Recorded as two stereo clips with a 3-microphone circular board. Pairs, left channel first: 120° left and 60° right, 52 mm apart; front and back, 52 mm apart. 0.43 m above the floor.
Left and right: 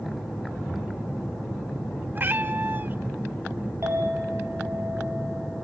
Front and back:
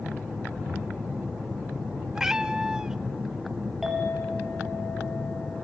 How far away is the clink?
About 5 m.